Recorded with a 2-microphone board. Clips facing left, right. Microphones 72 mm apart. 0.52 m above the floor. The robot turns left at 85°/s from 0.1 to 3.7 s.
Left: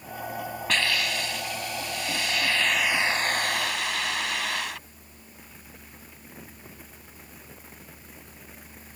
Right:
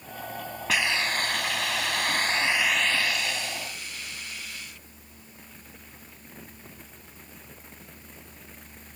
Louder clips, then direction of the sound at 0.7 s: Right 1 dB; 5° right.